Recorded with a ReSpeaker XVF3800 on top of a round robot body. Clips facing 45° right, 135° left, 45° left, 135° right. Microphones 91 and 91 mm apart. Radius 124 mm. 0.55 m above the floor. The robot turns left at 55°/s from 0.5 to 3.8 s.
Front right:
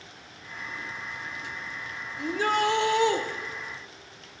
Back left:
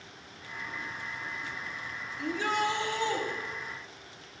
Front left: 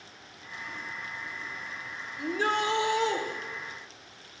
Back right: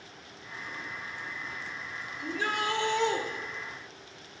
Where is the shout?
5° left, 1.6 m; by 3.2 s 50° right, 1.6 m.